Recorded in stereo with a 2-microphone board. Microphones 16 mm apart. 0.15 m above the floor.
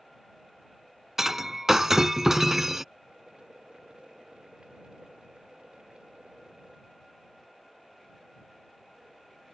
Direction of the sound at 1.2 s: 25° right (ahead or behind).